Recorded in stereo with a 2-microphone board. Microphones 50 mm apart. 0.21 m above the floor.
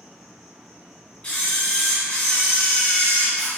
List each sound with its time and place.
0.0 s an insect: centre (ahead or behind), 1.0 m
1.2 s a camera shutter: 30° left (ahead or behind), 1.3 m